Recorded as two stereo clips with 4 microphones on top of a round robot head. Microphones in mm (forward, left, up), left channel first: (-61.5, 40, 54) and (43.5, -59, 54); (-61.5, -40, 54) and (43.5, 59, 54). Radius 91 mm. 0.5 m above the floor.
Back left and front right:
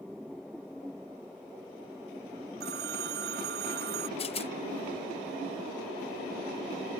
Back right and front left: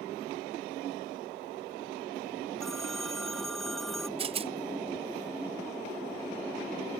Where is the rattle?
90° left.